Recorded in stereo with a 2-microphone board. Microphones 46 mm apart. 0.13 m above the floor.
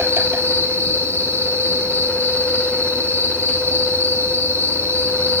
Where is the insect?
60° right (ahead or behind), 1.8 m.